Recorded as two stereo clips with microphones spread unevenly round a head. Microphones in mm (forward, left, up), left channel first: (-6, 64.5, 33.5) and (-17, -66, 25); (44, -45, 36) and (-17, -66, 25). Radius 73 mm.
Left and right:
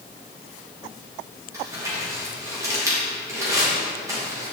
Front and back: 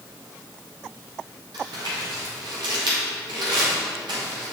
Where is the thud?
I don't hear a thud.